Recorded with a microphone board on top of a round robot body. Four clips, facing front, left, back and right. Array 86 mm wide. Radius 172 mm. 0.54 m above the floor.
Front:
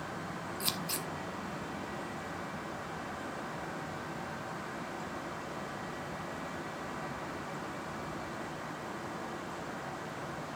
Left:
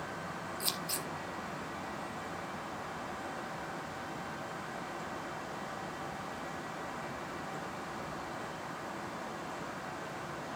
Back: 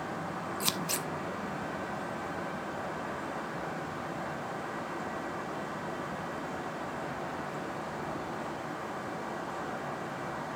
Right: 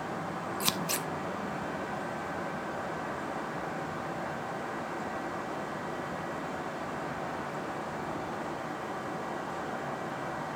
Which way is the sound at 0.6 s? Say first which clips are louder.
Right 6 dB, back 3 dB; 115° right.